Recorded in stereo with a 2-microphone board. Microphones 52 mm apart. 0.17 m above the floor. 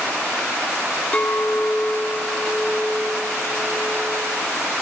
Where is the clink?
30° left (ahead or behind), 0.7 m.